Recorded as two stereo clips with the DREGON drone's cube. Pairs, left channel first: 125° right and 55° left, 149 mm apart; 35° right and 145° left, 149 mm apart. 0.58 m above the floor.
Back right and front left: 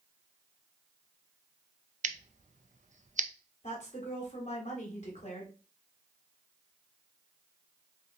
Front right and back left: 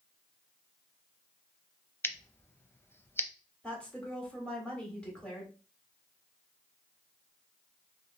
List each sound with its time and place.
2.0 s scissors: 40° left, 0.5 m
3.6 s a woman speaking: 115° right, 1.7 m